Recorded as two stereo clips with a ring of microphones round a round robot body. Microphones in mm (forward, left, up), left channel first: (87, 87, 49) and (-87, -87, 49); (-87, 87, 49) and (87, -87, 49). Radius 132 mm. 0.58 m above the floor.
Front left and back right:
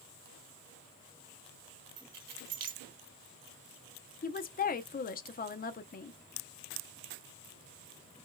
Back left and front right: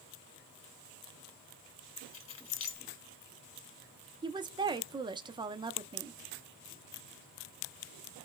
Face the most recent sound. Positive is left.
turn(degrees=15)